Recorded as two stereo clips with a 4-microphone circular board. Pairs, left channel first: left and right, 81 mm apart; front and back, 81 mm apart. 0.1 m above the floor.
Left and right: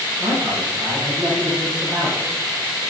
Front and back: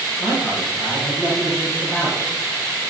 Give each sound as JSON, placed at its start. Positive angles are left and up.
{"t": 0.2, "sound": "a man speaking", "azimuth_deg": -65, "distance_m": 6.0}